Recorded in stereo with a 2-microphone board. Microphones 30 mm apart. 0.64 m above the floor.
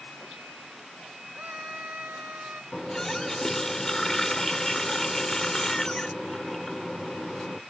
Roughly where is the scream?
Right.